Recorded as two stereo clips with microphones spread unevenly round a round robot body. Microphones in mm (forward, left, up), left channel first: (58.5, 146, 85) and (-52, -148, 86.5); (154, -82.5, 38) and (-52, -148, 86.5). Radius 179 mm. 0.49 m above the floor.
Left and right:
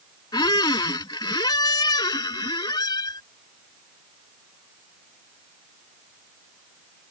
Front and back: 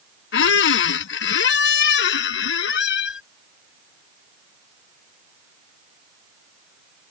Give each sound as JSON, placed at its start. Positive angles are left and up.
{"t": 0.3, "sound": "a squeak", "azimuth_deg": -5}